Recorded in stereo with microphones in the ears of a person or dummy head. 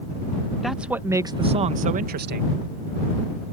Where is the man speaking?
5° left (ahead or behind); by 2.5 s 55° right (ahead or behind).